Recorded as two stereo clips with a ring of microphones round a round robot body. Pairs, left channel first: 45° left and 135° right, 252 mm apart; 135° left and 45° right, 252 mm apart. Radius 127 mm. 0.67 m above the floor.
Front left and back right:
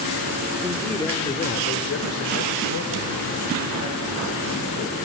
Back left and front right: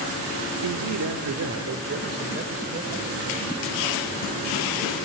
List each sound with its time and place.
0.6 s a man speaking: 55° right, 1.5 m; by 5.0 s 30° left, 5.5 m